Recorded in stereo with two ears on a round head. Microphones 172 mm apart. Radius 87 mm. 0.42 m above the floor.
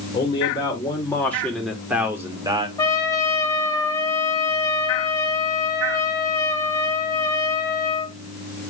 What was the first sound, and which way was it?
A man speaking, 25° left (ahead or behind).